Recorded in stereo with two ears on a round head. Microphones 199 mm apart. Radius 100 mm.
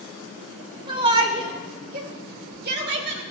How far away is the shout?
About 3 m.